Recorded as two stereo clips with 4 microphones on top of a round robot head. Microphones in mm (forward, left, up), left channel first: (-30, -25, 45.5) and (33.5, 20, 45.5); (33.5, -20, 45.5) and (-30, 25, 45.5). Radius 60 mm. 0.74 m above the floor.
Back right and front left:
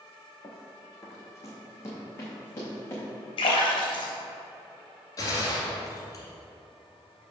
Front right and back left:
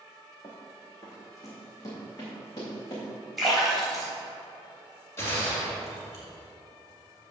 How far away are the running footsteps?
About 1.7 m.